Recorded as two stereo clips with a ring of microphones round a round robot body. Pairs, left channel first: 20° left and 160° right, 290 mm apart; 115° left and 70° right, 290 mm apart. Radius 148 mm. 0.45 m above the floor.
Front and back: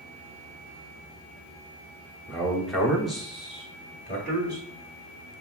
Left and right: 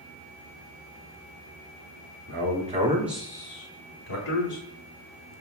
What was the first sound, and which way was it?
A man speaking, 65° right.